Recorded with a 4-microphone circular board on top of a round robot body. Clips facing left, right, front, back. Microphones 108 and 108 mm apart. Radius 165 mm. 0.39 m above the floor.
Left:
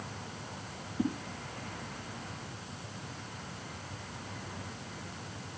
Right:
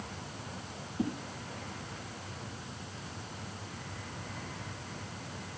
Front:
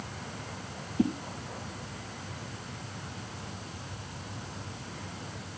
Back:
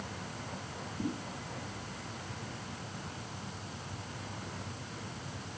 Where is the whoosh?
5° left, 3.5 m.